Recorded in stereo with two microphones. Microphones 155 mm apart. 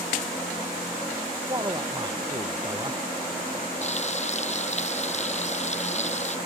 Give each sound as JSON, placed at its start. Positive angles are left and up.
{"t": 1.5, "sound": "a man speaking", "side_deg": -25}
{"t": 3.8, "sound": "frying", "side_deg": 45}